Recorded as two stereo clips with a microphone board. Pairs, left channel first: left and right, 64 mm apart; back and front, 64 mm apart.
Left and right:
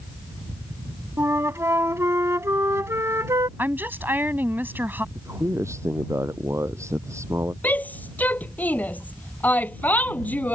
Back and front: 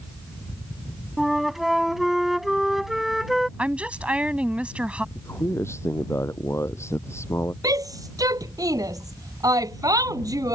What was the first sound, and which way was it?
A flute, 85° right.